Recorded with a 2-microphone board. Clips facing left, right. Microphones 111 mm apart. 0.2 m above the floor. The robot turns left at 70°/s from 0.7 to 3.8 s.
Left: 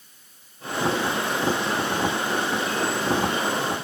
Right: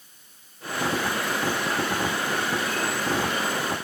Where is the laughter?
No laughter in this recording.